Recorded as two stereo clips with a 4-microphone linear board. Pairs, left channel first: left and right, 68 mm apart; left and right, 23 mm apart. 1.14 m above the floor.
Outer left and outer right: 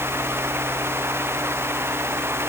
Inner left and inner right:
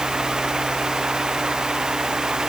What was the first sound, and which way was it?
Only background noise.